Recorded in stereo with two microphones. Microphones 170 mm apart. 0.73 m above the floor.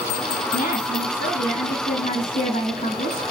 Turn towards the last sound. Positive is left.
turn(degrees=45)  # may be behind; listen again after turning